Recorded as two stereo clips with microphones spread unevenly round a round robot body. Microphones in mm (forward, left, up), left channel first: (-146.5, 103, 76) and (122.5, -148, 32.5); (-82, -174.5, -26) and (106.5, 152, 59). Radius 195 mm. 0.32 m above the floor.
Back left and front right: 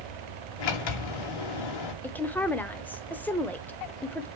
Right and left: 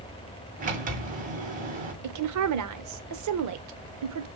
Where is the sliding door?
135° left, 2 m.